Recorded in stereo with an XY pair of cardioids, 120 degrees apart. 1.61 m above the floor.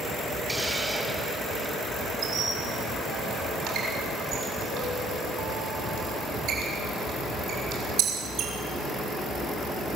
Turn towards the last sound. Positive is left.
turn(degrees=-65)